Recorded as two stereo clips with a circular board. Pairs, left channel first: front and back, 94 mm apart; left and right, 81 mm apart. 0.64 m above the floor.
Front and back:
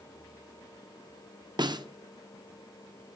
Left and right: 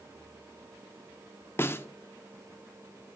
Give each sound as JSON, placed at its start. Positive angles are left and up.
{"t": 1.6, "sound": "a snare drum", "azimuth_deg": 145, "distance_m": 0.6}